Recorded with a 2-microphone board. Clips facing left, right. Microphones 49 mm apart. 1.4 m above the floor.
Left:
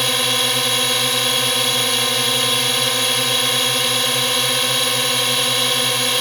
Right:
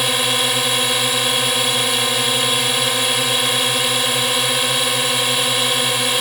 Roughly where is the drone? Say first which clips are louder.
Right 1 dB; centre.